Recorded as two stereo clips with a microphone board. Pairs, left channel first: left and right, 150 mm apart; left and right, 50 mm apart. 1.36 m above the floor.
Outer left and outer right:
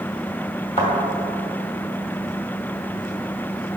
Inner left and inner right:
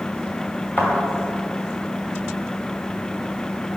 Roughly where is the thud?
Left.